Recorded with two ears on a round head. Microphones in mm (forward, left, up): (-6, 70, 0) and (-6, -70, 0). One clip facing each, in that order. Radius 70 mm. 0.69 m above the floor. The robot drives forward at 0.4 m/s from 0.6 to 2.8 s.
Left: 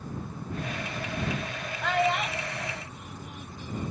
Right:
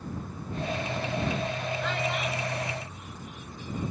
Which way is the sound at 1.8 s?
50° left (ahead or behind).